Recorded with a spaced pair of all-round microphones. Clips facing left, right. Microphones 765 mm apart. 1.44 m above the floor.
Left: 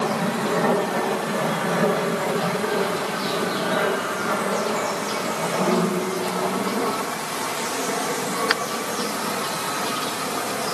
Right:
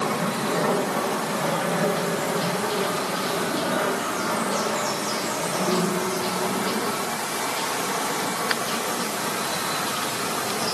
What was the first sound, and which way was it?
Only background noise.